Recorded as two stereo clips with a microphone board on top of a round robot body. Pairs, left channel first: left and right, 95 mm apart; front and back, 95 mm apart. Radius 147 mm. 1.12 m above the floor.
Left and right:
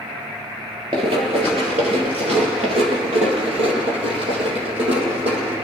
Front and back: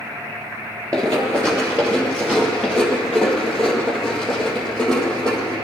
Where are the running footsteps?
125° right, 1.2 m; by 5.5 s 85° right, 3 m.